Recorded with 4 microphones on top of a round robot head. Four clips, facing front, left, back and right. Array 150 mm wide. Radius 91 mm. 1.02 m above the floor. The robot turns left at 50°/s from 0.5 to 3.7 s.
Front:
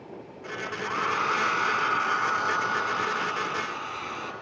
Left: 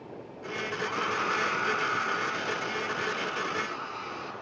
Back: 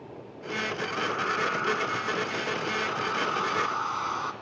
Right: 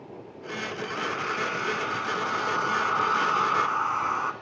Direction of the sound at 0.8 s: 30° left.